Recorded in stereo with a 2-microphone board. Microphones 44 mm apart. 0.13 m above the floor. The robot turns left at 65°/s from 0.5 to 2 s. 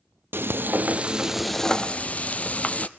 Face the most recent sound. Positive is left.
turn(degrees=145)